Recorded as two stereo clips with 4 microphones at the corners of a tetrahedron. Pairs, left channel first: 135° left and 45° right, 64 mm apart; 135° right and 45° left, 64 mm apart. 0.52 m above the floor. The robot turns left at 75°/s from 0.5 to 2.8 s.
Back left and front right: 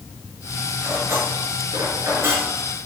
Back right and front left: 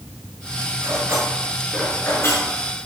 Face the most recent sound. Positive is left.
turn(degrees=-130)